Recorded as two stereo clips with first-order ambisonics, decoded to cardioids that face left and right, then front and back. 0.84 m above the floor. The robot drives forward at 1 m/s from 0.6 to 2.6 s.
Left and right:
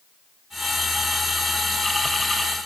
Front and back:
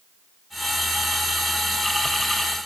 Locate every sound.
Only background noise.